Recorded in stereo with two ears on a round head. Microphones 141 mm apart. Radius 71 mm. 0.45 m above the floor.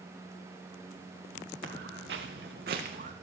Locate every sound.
1.6 s footsteps: 70° right (ahead or behind), 2 m; by 3.1 s 50° right (ahead or behind), 1.6 m